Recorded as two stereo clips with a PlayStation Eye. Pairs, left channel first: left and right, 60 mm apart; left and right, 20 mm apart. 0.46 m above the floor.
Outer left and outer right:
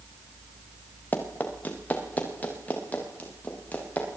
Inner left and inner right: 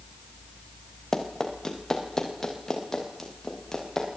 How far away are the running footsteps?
About 5.5 m.